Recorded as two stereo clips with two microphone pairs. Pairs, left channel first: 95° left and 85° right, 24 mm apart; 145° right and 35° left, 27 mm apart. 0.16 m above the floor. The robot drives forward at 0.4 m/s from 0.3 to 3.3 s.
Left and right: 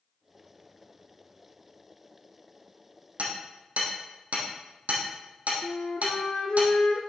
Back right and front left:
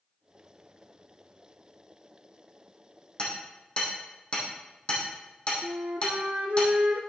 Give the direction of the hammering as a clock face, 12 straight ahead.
3 o'clock.